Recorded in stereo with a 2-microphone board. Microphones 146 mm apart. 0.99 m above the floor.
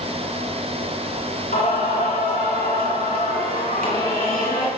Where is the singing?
75° left (ahead or behind), 5.5 m.